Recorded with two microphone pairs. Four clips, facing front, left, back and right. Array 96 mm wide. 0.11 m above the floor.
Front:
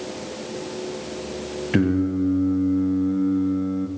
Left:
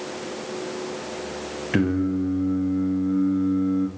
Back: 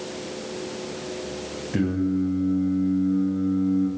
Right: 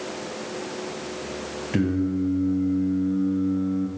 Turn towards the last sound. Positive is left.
turn(degrees=60)